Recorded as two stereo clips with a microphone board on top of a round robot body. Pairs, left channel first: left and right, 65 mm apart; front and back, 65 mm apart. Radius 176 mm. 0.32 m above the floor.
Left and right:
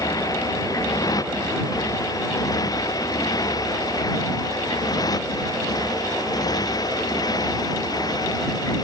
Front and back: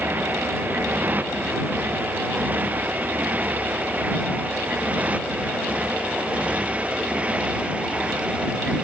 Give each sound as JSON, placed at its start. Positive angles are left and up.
{"t": 0.0, "sound": "a motorcycle", "azimuth_deg": 120}